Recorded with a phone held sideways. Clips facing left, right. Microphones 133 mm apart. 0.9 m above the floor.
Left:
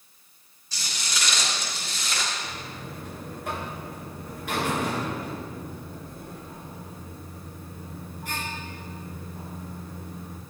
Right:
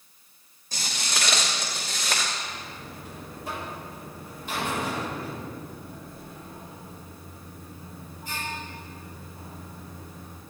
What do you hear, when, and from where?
0.7 s footsteps: 50° right (ahead or behind), 2.5 m; by 2.3 s 60° right (ahead or behind), 4 m
2.4 s a buzzer: 75° left (ahead or behind), 4 m